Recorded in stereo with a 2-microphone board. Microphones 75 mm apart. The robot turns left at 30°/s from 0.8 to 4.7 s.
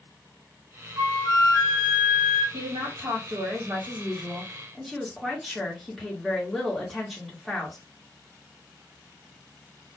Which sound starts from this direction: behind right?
A woman speaking, at 2.5 s.